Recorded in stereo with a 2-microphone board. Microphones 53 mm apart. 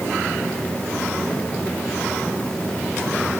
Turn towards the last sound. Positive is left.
No sound to turn to.